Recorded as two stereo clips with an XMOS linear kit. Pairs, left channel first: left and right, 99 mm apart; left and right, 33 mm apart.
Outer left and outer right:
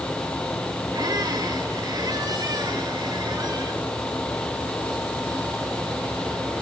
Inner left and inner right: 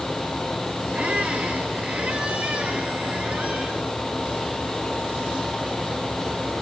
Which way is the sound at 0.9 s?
40° right (ahead or behind).